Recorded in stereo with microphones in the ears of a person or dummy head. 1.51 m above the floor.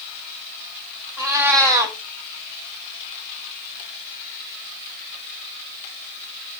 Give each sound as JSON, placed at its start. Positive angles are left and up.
{"t": 1.2, "sound": "a cat meowing", "side_deg": -20, "distance_m": 1.3}